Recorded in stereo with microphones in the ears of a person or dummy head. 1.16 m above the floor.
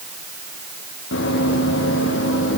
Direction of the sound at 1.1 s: 70° left (ahead or behind).